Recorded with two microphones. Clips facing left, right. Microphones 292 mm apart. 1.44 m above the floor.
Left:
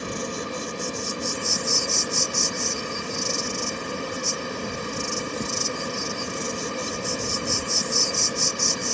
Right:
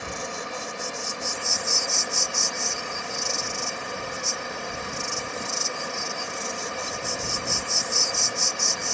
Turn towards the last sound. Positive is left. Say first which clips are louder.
# left 5 dB
turn(degrees=40)  # may be behind; listen again after turning